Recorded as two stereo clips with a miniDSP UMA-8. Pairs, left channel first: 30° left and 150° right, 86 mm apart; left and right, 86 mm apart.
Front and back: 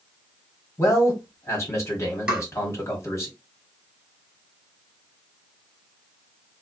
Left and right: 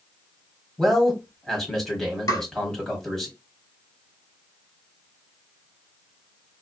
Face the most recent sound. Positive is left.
turn(degrees=130)